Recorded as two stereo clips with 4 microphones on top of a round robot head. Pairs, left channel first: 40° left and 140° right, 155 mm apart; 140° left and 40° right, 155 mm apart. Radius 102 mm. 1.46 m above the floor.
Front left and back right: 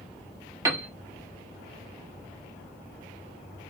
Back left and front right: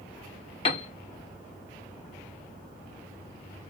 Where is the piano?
165° left, 0.8 m.